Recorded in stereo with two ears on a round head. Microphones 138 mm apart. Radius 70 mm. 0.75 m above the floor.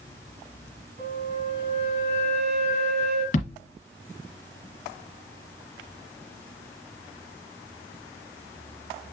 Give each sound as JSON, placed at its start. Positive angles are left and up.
{"t": 1.0, "sound": "a flute", "side_deg": -75, "distance_m": 3.5}
{"t": 3.3, "sound": "a thud", "side_deg": 50, "distance_m": 2.0}